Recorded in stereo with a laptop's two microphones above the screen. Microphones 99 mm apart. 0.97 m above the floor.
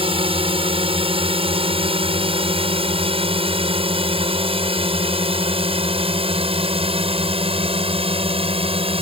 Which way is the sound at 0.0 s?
70° right (ahead or behind).